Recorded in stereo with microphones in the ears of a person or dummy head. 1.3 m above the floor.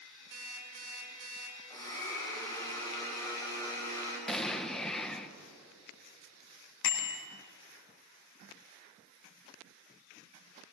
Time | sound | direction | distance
0.3 | an alarm clock | 70° right (ahead or behind) | 5 m
1.7 | a blender | 25° left (ahead or behind) | 5.5 m
4.3 | an explosion | 5° left (ahead or behind) | 0.9 m
6.8 | a bicycle bell | 80° left | 4 m